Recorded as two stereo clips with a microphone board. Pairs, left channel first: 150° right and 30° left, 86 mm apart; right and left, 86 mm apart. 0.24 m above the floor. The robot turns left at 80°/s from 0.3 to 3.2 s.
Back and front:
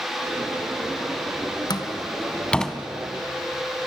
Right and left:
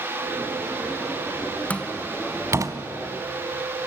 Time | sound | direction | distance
1.7 | a door slam | 155° right | 1.4 m